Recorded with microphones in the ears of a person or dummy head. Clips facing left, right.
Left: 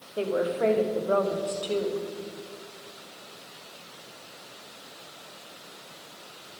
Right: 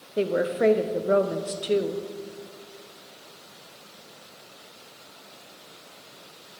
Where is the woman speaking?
20° right (ahead or behind), 0.5 m.